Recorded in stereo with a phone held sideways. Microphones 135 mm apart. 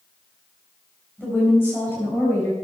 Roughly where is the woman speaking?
Centre.